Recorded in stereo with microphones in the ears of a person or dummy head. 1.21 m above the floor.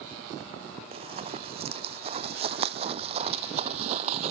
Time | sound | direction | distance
0.9 | running footsteps | 30° right (ahead or behind) | ?